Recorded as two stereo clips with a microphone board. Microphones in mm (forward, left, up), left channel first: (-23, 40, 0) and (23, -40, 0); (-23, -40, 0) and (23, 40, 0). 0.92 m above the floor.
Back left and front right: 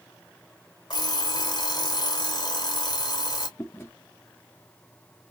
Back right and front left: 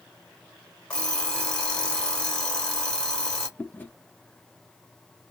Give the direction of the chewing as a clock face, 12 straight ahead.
6 o'clock.